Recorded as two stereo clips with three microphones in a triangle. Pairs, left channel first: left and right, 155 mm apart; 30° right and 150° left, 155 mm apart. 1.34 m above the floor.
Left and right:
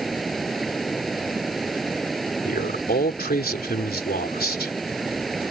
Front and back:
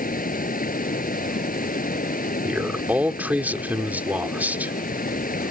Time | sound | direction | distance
0.0 | running water | straight ahead | ?
2.5 | a man speaking | 70° left | ?